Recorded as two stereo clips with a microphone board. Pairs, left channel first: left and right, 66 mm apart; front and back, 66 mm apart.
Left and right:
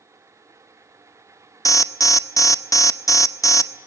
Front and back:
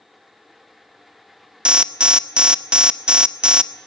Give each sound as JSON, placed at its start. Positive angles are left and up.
{"t": 1.6, "sound": "an alarm", "azimuth_deg": 105, "distance_m": 0.7}